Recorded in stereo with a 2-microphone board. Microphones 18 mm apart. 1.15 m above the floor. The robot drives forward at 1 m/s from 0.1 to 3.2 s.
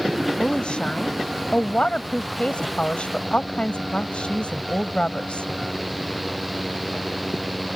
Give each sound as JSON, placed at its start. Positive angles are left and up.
{"t": 0.4, "sound": "a woman speaking", "side_deg": 65}